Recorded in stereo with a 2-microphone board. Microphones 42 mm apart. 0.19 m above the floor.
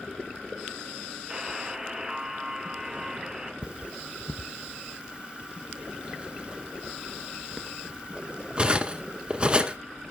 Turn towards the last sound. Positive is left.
turn(degrees=-30)  # may be behind; listen again after turning